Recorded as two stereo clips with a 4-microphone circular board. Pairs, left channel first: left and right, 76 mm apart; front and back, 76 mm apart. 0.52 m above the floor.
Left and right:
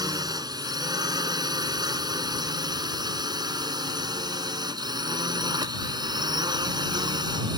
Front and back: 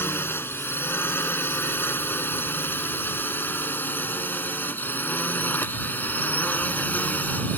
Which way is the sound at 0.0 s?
60° right.